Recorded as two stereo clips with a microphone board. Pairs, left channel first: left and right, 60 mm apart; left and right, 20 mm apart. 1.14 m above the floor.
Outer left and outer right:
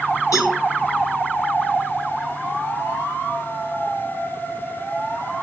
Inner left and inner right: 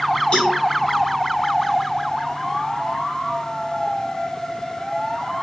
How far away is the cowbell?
About 1.9 m.